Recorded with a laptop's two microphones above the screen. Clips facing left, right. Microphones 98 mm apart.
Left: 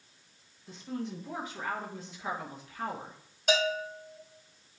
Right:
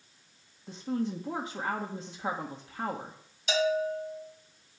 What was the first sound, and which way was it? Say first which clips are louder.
A woman speaking: right 5 dB; 30° right (ahead or behind).